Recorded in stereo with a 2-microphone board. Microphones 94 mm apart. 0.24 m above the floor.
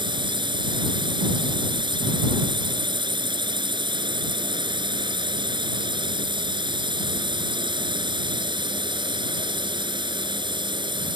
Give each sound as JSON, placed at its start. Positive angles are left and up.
{"t": 0.0, "sound": "a drone", "side_deg": -55}